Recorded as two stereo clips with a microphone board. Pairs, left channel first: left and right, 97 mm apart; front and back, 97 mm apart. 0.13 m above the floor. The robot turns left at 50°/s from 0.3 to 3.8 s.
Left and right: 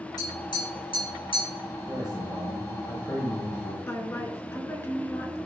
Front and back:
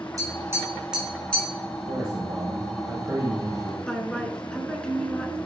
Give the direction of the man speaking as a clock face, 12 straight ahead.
5 o'clock.